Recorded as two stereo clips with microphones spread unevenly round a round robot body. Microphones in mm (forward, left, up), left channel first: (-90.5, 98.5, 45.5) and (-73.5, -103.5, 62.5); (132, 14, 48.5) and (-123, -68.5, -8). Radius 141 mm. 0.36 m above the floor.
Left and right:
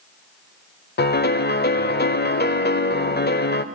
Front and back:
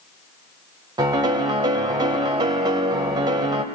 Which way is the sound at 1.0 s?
130° left.